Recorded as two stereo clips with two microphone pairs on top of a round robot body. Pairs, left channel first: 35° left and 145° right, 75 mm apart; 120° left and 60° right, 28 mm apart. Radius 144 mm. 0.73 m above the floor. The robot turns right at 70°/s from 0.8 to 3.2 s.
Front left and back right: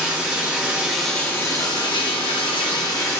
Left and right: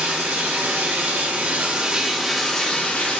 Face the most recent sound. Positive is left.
turn(degrees=100)